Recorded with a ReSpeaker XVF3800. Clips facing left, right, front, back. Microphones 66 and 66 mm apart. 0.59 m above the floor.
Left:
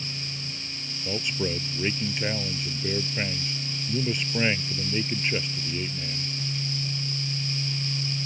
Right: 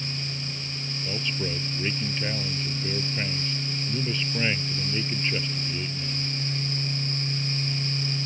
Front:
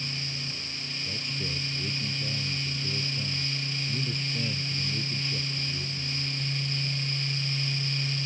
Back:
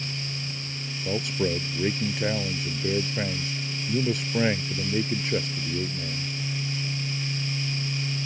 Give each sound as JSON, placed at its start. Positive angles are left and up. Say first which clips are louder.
{"t": 1.1, "sound": "a man speaking", "louder": "left 3 dB, back 12 dB", "azimuth_deg": 165}